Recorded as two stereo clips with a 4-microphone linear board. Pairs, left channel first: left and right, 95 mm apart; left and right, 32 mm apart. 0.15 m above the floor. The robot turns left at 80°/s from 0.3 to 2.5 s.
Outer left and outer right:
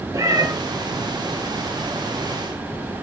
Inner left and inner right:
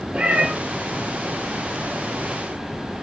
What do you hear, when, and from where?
0.1 s a cat meowing: 35° right (ahead or behind), 0.6 m; by 0.5 s 50° right (ahead or behind), 0.6 m